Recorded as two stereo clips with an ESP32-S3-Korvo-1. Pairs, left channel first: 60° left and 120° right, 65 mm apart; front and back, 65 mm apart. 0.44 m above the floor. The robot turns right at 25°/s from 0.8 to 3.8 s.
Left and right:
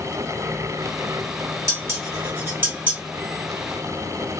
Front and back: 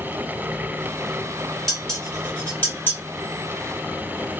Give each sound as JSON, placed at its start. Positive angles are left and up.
{"t": 1.7, "sound": "dishes clattering", "azimuth_deg": -90, "distance_m": 1.9}